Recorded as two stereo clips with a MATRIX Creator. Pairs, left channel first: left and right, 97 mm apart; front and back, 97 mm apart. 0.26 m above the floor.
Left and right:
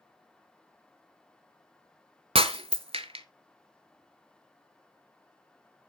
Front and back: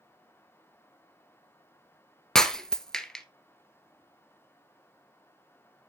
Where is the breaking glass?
85° right, 0.8 m.